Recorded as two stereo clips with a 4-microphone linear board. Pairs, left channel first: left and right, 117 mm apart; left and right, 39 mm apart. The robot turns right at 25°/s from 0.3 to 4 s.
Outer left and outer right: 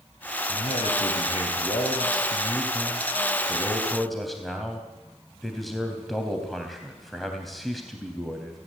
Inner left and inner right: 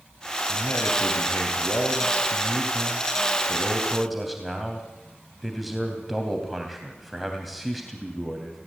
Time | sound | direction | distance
0.5 | a man speaking | 90° left | 3 m